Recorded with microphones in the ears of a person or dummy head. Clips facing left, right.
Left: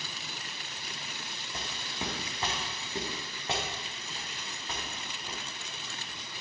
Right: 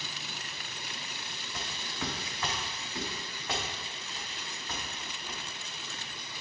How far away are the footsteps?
About 3.5 m.